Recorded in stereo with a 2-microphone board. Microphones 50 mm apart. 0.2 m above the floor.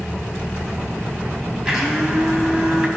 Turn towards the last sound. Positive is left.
turn(degrees=-15)  # may be behind; listen again after turning